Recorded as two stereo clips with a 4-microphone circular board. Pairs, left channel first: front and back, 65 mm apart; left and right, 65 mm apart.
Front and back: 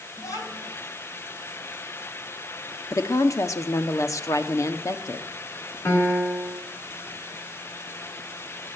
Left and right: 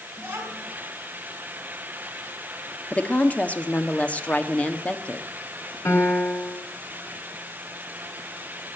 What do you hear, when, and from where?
0.2 s a child speaking: 30° right, 5 m
2.9 s a woman speaking: 25° left, 1.3 m
5.8 s a piano: 50° left, 3 m